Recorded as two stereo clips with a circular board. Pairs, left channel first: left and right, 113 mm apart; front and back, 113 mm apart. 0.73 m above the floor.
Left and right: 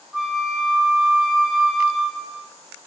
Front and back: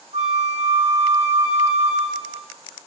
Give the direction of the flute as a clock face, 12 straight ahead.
6 o'clock.